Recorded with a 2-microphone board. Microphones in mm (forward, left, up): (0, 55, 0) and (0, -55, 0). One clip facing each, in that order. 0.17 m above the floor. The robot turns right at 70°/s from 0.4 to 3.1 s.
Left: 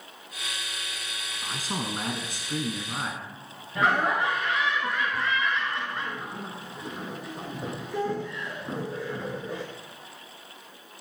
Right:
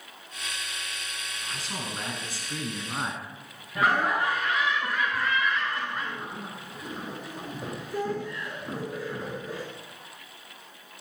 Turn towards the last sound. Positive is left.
turn(degrees=0)  # may be behind; listen again after turning